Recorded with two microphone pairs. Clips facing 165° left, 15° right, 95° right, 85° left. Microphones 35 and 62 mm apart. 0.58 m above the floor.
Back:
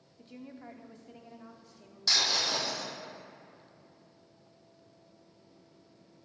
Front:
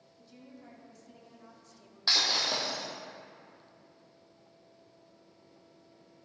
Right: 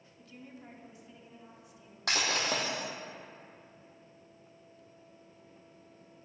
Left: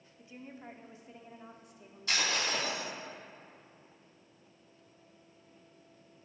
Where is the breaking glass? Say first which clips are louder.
Even, right 1 dB; 75° right, 3.5 m.